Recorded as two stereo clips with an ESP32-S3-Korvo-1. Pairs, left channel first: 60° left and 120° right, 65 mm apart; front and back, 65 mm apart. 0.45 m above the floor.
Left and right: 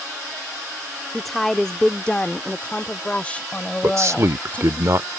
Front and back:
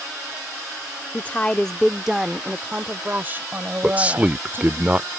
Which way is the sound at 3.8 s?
120° right.